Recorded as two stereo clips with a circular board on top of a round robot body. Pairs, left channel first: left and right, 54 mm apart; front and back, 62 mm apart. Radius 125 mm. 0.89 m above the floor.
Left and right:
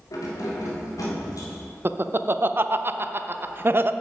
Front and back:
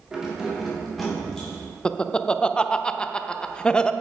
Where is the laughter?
70° right, 0.6 m.